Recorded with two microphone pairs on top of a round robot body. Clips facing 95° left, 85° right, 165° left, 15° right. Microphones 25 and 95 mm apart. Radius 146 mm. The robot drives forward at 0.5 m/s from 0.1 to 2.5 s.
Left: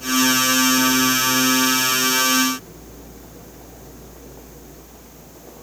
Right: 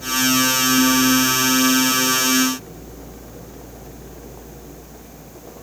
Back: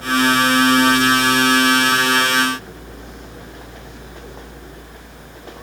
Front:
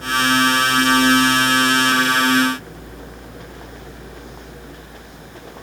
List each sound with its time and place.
Only background noise.